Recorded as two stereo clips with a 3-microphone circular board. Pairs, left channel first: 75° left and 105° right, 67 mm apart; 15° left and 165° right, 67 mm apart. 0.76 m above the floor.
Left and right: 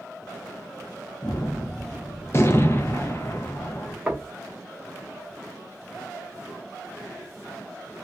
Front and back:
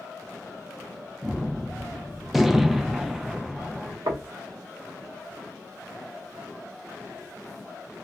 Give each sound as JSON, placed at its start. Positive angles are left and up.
{"t": 1.2, "sound": "a gunshot", "azimuth_deg": 110, "distance_m": 0.6}
{"t": 4.1, "sound": "knocking", "azimuth_deg": 180, "distance_m": 0.7}